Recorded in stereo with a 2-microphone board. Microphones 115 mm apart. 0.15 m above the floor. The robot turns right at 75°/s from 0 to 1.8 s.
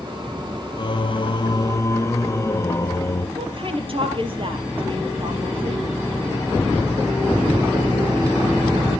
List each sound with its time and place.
0.8 s singing: 65° left, 0.9 m; by 3.3 s 145° left, 0.9 m
3.4 s a woman speaking: 50° right (ahead or behind), 3.5 m